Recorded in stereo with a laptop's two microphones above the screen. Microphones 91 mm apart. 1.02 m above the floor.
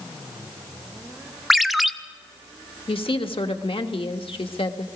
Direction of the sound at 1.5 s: Centre (ahead or behind).